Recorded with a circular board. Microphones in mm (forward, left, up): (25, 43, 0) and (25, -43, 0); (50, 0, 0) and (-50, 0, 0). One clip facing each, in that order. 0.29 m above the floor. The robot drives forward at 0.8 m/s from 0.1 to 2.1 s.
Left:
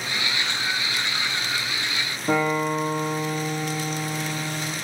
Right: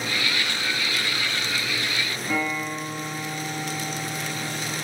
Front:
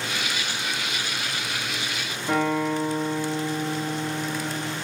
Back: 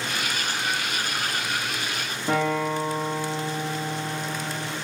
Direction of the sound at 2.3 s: 125° left.